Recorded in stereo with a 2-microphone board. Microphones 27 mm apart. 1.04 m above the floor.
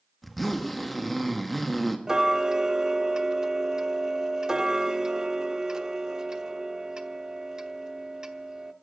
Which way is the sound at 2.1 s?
25° right (ahead or behind).